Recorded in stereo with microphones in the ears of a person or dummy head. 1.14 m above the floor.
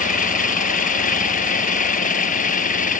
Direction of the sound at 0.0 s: 45° left (ahead or behind).